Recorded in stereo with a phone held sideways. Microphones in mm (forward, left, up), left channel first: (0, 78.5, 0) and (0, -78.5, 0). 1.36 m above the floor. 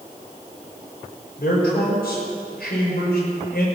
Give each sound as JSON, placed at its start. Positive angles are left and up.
{"t": 1.4, "sound": "a man speaking", "side_deg": 85, "distance_m": 4.5}